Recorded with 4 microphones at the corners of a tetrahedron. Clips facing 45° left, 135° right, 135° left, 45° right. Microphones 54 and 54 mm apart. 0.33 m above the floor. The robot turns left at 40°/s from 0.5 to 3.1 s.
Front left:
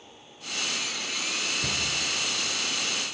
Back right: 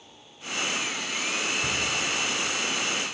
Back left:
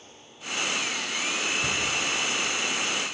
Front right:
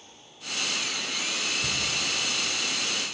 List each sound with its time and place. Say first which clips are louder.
1.6 s a cupboard door: back right 3 dB, back left 3 dB; 70° left, 5.5 m; by 2.0 s 60° left, 5.5 m